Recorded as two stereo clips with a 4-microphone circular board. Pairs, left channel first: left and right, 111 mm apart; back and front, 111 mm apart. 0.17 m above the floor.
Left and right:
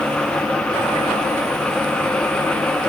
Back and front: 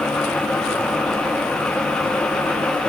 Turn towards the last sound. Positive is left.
No sound to turn to.